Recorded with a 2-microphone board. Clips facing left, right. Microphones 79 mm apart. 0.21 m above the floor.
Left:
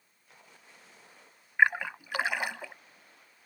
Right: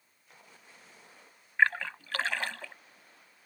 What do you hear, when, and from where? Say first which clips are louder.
1.6 s a splash: left 2 dB; 15° left (ahead or behind)